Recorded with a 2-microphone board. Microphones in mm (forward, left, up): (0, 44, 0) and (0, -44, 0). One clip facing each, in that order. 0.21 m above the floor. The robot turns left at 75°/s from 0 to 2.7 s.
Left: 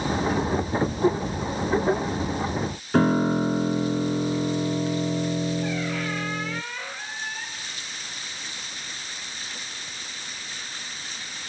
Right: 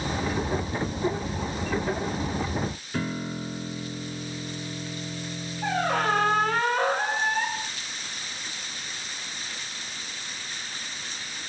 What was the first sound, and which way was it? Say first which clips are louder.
A piano: left 13 dB; 50° left (ahead or behind).